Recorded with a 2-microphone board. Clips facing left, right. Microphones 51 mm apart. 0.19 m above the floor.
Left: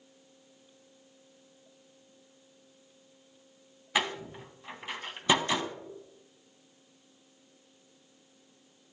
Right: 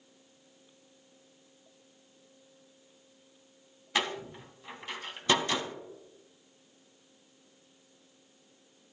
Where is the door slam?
10° left (ahead or behind), 0.8 m.